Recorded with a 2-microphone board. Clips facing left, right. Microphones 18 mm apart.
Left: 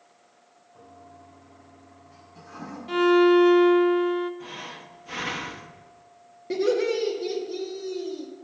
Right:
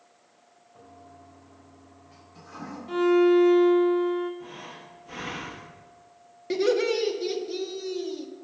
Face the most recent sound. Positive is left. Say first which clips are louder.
# even
turn(degrees=-45)  # may be behind; listen again after turning